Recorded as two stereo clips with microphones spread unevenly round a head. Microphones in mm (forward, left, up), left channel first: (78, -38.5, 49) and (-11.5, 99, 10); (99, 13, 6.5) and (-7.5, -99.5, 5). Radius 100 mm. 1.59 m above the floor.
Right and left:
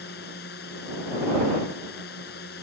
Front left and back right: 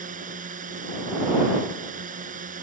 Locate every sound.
0.0 s a drone: 100° right